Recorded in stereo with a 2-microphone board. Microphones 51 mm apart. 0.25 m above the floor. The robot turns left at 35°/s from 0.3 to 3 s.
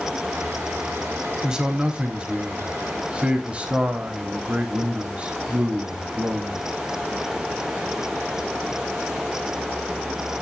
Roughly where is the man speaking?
Centre.